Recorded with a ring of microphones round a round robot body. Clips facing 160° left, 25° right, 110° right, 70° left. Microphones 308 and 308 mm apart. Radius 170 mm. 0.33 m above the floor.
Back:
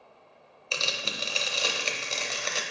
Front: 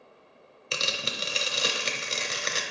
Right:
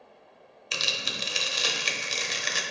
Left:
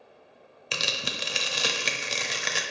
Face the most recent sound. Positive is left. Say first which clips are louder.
# front 1 dB, left 2 dB
turn(degrees=45)